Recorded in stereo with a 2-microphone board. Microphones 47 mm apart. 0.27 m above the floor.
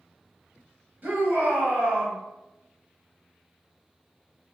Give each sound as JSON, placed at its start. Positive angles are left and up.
{"t": 1.0, "sound": "a shout", "side_deg": -40, "distance_m": 1.1}